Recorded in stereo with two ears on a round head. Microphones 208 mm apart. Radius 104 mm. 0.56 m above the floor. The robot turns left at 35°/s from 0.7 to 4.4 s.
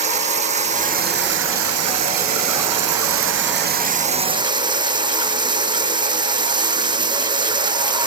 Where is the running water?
30° right; by 8.1 s 160° right.